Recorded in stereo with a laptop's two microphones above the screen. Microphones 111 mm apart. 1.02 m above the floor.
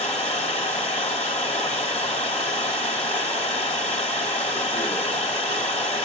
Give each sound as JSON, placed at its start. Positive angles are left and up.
{"t": 0.0, "sound": "running water", "side_deg": 75, "distance_m": 2.0}